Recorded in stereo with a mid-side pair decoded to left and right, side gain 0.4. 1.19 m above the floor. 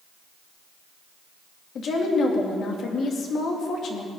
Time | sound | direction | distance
1.8 | a woman speaking | 65° left | 2.5 m